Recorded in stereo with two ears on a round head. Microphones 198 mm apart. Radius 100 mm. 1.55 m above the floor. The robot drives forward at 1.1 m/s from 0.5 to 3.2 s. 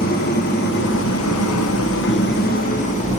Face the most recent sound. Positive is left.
turn(degrees=30)  # may be behind; listen again after turning